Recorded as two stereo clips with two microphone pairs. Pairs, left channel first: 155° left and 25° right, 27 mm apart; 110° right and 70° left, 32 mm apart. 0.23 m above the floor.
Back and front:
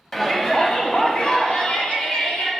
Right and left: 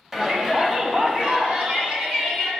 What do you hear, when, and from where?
0.1 s a shout: 110° left, 1.0 m; by 2.5 s 115° left, 2.5 m